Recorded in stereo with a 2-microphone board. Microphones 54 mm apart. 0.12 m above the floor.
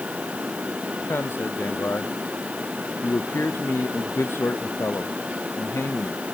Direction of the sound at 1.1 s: 50° left (ahead or behind).